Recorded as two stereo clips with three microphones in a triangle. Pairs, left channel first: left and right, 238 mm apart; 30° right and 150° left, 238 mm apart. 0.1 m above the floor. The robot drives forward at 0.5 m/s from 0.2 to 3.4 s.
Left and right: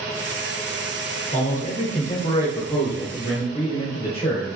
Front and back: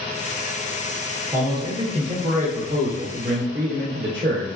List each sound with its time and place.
1.3 s a man speaking: 85° left, 1.3 m; by 4.5 s 145° left, 1.6 m